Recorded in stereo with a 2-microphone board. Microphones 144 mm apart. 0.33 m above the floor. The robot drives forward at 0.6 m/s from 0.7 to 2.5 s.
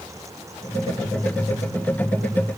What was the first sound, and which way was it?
Only background noise.